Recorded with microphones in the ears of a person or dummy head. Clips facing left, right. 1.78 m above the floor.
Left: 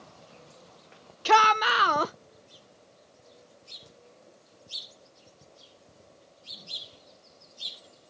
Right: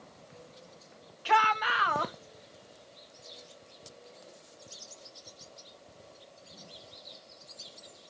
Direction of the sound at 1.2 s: 60° left (ahead or behind).